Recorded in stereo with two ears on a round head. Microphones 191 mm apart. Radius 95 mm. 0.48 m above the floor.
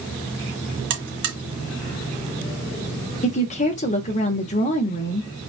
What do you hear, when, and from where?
0.9 s a buzzer: 55° right (ahead or behind), 1.6 m
3.2 s a woman speaking: 35° left (ahead or behind), 0.9 m